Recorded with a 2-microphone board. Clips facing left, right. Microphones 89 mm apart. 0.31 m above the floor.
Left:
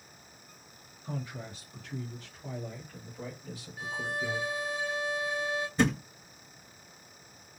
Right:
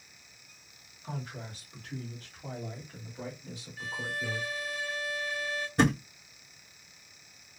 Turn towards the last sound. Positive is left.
turn(degrees=-65)  # may be behind; listen again after turning